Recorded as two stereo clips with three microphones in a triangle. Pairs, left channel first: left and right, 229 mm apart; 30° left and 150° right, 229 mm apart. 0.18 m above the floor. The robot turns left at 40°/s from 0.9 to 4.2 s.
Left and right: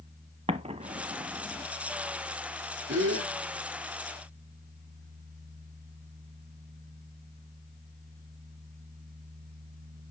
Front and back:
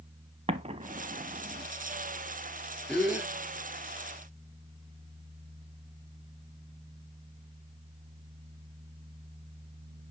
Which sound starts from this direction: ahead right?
A gasp, at 2.9 s.